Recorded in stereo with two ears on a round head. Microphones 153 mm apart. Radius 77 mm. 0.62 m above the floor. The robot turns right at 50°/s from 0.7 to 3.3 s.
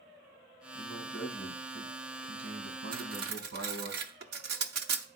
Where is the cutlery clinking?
50° right (ahead or behind), 0.8 m; by 5.1 s 65° right (ahead or behind), 0.8 m.